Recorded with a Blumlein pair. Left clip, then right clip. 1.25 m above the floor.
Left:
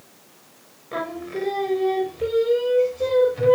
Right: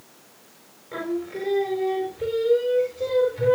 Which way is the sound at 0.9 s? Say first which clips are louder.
Left 1 dB; 15° left.